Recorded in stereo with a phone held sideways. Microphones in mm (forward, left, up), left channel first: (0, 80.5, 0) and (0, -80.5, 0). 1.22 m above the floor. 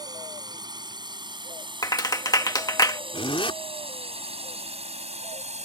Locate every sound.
0.0 s a drone: 25° right (ahead or behind); by 5.7 s 45° right (ahead or behind)
1.8 s a clap: 25° left (ahead or behind)
3.1 s a zipper: 35° left (ahead or behind)